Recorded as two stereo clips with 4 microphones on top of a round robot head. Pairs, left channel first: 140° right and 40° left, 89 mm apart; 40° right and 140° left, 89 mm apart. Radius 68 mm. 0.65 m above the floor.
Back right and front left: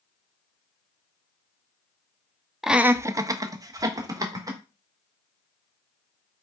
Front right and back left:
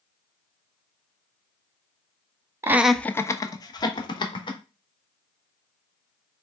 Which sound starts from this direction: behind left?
Laughter, at 2.6 s.